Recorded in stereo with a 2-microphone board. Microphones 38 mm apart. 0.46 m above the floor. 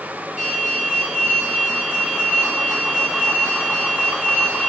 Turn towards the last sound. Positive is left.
turn(degrees=-30)  # may be behind; listen again after turning